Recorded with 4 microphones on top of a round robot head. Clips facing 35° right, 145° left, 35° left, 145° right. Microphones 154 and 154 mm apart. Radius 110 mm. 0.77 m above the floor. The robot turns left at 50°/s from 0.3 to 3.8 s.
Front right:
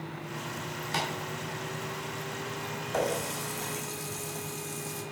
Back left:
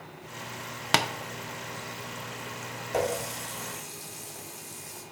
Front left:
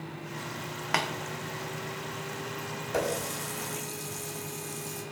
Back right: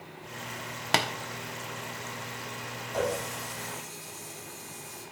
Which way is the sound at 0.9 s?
155° left.